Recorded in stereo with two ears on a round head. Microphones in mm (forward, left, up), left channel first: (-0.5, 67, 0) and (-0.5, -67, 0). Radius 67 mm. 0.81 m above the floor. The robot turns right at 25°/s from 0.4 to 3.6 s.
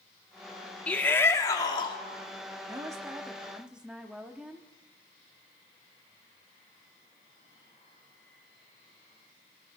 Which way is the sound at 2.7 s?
30° right (ahead or behind).